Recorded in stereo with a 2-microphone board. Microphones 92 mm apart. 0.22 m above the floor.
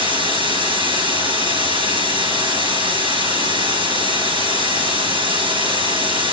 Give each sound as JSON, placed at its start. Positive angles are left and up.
{"t": 0.0, "sound": "running water", "side_deg": -65, "distance_m": 3.5}